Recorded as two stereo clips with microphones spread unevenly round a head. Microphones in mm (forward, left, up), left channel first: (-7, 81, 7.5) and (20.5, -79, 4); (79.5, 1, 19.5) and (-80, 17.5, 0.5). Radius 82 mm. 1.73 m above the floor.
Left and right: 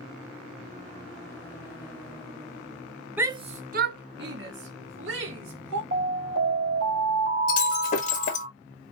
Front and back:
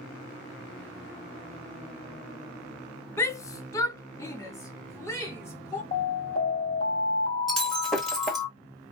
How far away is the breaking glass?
About 1.7 m.